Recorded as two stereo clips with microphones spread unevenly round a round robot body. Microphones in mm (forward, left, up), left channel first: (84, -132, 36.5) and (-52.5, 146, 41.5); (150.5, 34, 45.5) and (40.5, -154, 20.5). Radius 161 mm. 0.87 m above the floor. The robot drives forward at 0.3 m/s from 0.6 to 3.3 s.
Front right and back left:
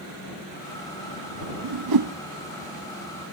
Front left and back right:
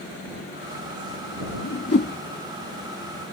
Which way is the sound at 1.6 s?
110° left.